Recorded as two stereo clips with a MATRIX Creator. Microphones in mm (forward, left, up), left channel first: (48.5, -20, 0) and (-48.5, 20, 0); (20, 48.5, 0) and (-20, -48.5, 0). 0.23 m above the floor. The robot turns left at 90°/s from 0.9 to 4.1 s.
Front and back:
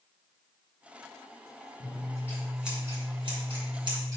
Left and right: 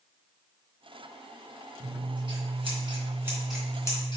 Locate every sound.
1.8 s scissors: 45° right, 3 m; by 4.2 s 105° left, 3 m